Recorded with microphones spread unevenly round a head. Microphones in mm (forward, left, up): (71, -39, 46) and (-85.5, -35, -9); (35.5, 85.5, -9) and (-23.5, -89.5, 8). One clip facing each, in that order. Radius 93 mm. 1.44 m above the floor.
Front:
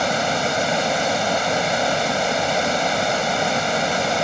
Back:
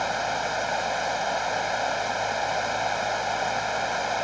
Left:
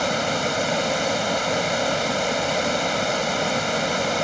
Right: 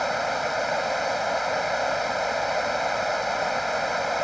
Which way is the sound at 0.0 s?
30° left.